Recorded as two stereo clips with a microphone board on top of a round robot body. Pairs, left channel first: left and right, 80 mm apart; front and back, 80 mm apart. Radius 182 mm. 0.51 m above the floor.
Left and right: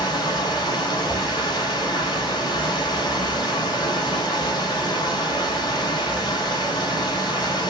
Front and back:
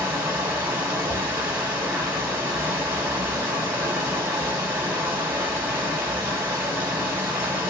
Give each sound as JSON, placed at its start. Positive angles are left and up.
{"t": 0.0, "sound": "running water", "azimuth_deg": 125, "distance_m": 2.5}
{"t": 1.1, "sound": "a whoosh", "azimuth_deg": 145, "distance_m": 0.6}